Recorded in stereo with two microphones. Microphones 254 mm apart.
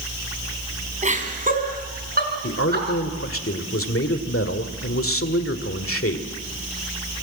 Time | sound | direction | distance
1.0 | laughter | 30° right (ahead or behind) | 4 m
2.4 | a man speaking | 60° left (ahead or behind) | 1.8 m